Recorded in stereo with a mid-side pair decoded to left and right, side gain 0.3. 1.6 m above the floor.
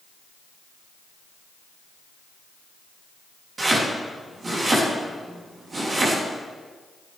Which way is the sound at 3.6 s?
50° right.